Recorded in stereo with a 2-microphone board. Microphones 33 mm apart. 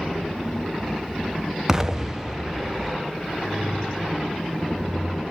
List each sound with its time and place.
1.7 s an explosion: 15° right (ahead or behind), 0.5 m